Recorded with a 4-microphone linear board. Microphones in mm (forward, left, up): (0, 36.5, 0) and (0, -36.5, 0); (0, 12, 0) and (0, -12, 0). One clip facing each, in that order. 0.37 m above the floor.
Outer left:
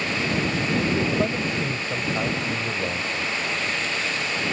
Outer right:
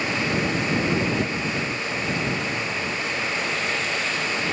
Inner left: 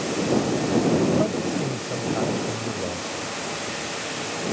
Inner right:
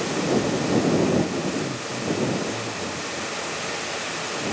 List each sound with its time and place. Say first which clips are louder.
1.2 s a man speaking: outer left 2 dB, inner left 1 dB; 50° left (ahead or behind)